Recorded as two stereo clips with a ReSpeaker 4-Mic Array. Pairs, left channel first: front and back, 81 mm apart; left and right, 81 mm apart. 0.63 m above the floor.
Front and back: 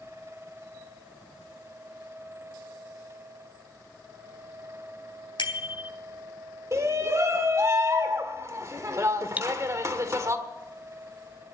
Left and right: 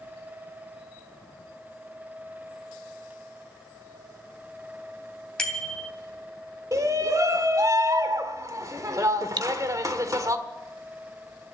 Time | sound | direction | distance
5.4 | a bicycle bell | 10° left | 2.5 m
6.7 | a shout | 130° right | 1.6 m
9.4 | cutlery clinking | 110° right | 0.6 m